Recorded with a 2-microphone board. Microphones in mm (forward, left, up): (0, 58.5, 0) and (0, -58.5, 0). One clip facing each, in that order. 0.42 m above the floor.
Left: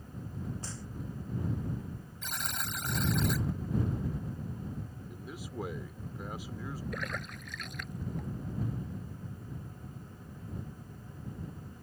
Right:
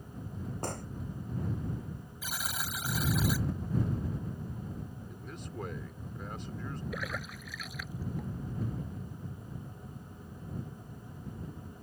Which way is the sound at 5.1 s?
10° left (ahead or behind).